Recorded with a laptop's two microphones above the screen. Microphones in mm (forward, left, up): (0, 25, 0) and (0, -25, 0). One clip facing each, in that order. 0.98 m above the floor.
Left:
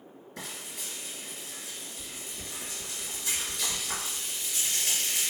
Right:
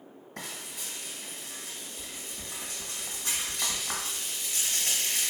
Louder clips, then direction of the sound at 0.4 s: Right 1 dB; 55° right (ahead or behind).